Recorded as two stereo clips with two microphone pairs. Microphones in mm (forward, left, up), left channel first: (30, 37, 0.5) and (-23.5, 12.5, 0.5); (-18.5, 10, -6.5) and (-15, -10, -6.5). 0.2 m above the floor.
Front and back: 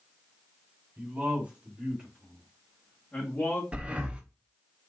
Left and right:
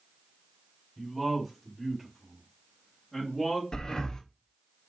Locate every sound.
1.0 s a man speaking: 165° right, 1.6 m; by 3.6 s 40° left, 1.5 m
3.7 s breathing: 140° left, 0.7 m